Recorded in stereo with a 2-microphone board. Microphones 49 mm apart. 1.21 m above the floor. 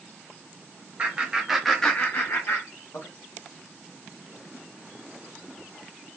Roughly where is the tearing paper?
No tearing paper in this recording.